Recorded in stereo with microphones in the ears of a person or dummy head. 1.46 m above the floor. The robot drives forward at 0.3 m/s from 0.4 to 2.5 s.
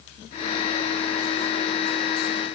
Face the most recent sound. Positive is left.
No sound to turn to.